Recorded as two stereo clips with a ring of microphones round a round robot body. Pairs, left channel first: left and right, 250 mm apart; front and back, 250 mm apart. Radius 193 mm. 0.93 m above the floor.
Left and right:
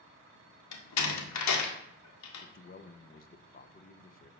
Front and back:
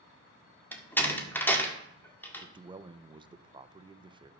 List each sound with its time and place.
0.7 s a door slam: 85° left, 1.6 m
2.4 s a man speaking: 115° left, 0.7 m